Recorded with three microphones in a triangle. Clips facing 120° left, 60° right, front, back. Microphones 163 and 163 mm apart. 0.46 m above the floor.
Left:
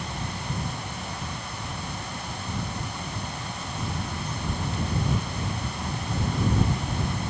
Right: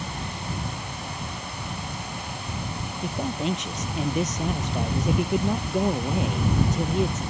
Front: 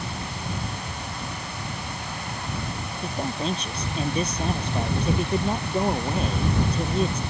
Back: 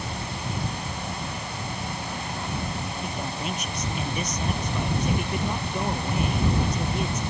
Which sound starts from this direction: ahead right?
A man speaking, at 3.0 s.